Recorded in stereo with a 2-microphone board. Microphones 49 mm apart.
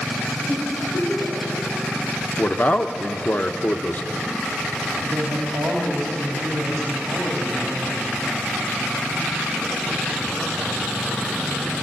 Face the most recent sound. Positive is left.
turn(degrees=-75)  # may be behind; listen again after turning